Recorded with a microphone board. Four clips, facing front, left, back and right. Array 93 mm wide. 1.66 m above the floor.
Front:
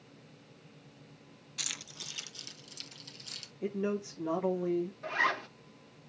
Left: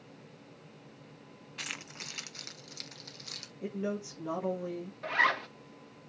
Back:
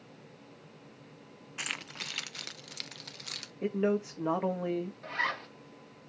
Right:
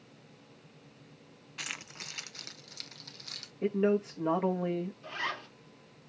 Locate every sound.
1.6 s keys jangling: 175° right, 0.5 m; by 3.5 s 175° left, 1.5 m
3.6 s a man speaking: 140° right, 1.9 m
5.0 s a zipper: 75° left, 1.7 m